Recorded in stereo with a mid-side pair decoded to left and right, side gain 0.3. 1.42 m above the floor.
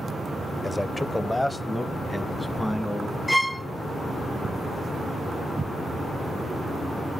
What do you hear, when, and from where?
0.6 s a man speaking: 10° left, 0.8 m; by 3.2 s straight ahead, 2.5 m
3.3 s a violin: straight ahead, 0.8 m